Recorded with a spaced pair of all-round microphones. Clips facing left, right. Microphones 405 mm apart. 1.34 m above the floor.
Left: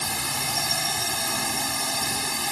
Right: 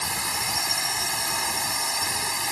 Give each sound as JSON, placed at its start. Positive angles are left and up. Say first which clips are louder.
{"t": 0.0, "sound": "a drone", "louder": "left 2 dB", "side_deg": 50}